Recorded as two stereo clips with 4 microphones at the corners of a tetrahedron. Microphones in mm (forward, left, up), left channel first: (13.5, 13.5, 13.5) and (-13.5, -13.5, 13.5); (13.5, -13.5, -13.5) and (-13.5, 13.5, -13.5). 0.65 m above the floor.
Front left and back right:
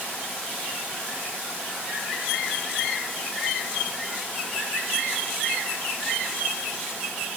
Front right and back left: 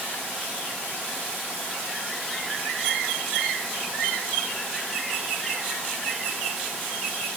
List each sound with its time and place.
Only background noise.